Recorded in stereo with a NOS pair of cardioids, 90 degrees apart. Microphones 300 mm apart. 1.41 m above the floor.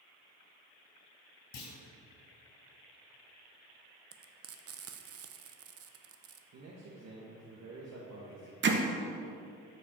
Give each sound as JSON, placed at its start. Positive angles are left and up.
{"t": 1.5, "sound": "a clunk", "azimuth_deg": 70, "distance_m": 3.0}
{"t": 4.1, "sound": "frying", "azimuth_deg": -50, "distance_m": 0.8}
{"t": 6.5, "sound": "a man speaking", "azimuth_deg": -60, "distance_m": 1.6}
{"t": 8.6, "sound": "hammering", "azimuth_deg": -40, "distance_m": 1.1}